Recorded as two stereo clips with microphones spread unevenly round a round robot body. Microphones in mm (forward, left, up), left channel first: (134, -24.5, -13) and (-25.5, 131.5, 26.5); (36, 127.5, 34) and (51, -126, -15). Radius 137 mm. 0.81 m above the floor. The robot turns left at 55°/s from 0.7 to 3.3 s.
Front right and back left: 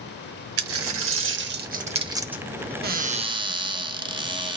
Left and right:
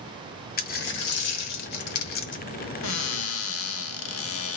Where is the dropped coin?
145° left, 1.0 m; by 2.4 s 50° left, 1.0 m.